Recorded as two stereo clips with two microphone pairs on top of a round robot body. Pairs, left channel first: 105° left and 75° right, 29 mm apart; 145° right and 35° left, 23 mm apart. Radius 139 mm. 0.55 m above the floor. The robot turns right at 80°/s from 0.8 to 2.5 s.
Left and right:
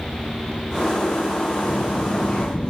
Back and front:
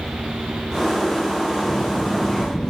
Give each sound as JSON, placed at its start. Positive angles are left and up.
{"t": 1.6, "sound": "a child speaking", "azimuth_deg": 110, "distance_m": 4.0}